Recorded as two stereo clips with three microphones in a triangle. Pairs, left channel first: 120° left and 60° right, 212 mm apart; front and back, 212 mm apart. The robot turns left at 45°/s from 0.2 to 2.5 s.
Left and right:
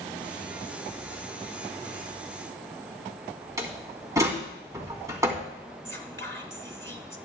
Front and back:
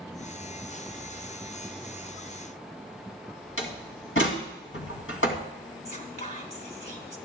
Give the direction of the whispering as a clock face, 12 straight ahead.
1 o'clock.